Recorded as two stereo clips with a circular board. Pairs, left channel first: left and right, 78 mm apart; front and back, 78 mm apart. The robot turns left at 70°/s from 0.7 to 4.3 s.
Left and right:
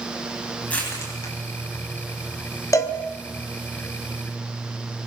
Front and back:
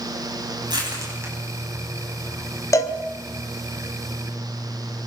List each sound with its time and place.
0.7 s crushing: 160° left, 9.5 m; by 2.6 s 30° left, 9.5 m
2.7 s a cowbell: 45° left, 2 m; by 3.0 s 30° left, 2 m